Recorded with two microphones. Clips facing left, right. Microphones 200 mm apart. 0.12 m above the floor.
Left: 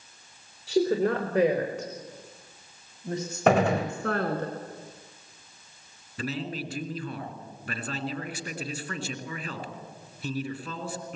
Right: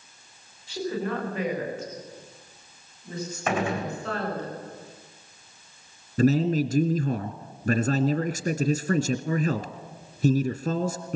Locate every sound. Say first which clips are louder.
0.7 s a woman speaking: left 6 dB; 80° left, 7.5 m; by 4.5 s 65° left (ahead or behind), 7 m
3.5 s a gunshot: left 5 dB; 65° left (ahead or behind), 4 m
6.2 s a man speaking: right 12 dB; 45° right (ahead or behind), 1.6 m